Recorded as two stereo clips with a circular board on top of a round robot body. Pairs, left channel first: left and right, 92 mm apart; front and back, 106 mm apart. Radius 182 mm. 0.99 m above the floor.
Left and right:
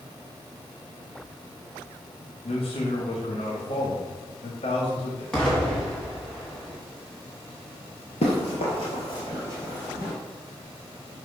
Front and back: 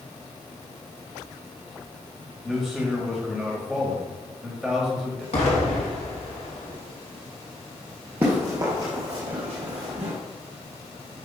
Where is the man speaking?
95° left, 1.9 m.